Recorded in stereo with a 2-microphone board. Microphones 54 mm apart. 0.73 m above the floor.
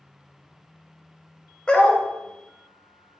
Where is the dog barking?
20° left (ahead or behind), 1.0 m.